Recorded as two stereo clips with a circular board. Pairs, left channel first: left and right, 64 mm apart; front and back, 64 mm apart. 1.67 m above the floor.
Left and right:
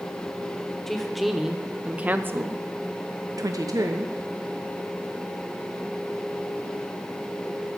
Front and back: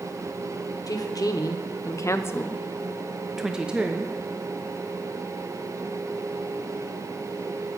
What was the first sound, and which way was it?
A woman speaking, 5° left.